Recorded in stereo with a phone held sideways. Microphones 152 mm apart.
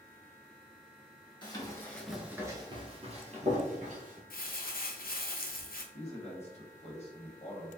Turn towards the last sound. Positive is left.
turn(degrees=45)  # may be behind; listen again after turning